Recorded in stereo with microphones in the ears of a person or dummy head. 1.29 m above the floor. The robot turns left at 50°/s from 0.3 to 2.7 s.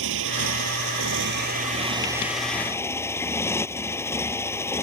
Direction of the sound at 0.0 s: 75° right.